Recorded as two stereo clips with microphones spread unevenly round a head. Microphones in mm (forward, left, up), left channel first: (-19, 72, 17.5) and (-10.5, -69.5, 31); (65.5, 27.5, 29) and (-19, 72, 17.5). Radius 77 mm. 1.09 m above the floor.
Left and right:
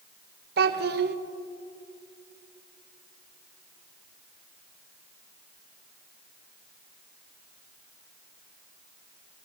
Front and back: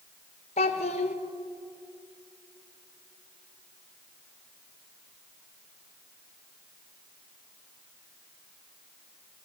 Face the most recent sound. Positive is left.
turn(degrees=-65)